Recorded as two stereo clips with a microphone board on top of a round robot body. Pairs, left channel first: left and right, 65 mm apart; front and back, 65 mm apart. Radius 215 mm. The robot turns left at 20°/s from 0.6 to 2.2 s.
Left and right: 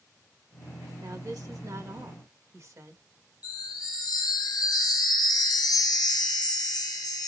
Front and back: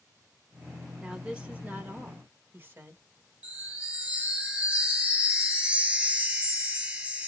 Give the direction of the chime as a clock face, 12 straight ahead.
8 o'clock.